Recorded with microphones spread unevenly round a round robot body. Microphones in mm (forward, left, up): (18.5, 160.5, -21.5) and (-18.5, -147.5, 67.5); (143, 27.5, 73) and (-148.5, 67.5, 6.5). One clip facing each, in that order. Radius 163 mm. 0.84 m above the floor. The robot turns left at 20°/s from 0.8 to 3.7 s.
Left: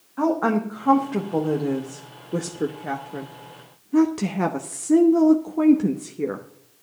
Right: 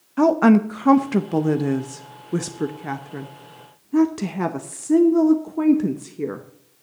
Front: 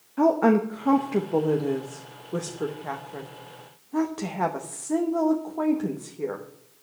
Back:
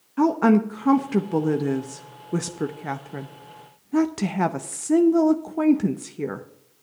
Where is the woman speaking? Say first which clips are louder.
Right 7 dB, back 2 dB; 135° right, 0.8 m; by 6.4 s 165° left, 0.8 m.